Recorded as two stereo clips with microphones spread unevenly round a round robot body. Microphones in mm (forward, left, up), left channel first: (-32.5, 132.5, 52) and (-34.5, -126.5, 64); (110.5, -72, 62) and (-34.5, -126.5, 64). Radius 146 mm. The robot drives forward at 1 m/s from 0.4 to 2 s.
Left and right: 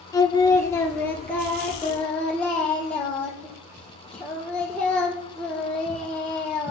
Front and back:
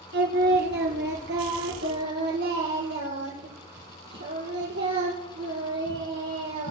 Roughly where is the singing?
Behind.